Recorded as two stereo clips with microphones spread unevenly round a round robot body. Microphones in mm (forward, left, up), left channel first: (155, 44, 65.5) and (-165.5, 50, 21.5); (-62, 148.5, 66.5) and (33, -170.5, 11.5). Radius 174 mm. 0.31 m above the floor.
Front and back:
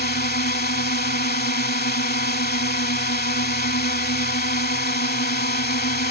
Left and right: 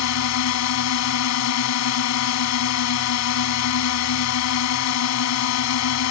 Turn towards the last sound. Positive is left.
turn(degrees=60)